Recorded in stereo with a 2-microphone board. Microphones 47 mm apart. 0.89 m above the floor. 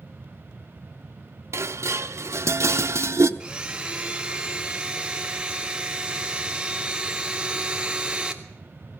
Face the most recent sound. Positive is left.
turn(degrees=-25)  # may be behind; listen again after turning